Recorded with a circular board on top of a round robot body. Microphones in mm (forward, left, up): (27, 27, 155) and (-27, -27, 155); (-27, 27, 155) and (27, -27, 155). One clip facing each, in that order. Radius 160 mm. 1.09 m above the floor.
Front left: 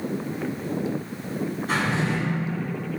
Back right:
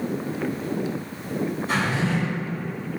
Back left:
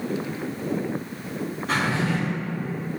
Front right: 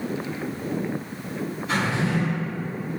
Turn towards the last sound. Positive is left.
turn(degrees=85)